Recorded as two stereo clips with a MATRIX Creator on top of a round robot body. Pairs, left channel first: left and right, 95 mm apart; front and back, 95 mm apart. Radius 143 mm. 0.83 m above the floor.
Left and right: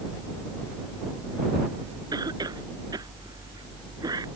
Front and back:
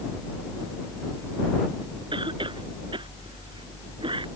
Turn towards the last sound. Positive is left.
turn(degrees=-140)